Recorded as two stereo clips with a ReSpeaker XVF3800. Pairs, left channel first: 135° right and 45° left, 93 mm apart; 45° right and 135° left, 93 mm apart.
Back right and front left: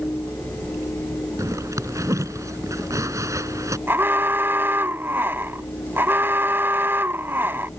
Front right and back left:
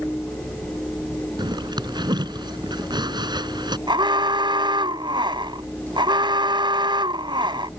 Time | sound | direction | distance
1.4 | a zipper | 100° left | ?
3.9 | an alarm | 110° left | ?